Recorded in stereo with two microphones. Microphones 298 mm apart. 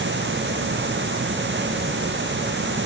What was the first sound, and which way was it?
Only background noise.